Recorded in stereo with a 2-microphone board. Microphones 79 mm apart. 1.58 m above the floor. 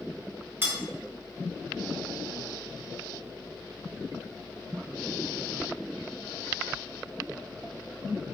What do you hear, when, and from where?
0.6 s cutlery clinking: 25° right (ahead or behind), 0.7 m